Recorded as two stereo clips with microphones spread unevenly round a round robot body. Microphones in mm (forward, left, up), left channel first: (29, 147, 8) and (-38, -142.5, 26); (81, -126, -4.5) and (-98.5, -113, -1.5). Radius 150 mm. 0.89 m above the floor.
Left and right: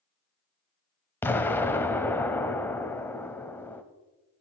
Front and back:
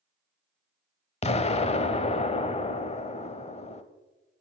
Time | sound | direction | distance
1.2 | an explosion | 5° right | 0.7 m